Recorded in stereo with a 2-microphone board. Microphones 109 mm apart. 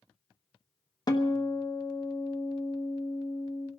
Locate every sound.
1.1 s a guitar: 40° left (ahead or behind), 1.3 m